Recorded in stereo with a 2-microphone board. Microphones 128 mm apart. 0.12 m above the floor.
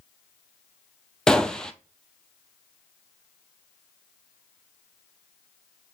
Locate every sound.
1.3 s a gunshot: 5° left (ahead or behind), 0.6 m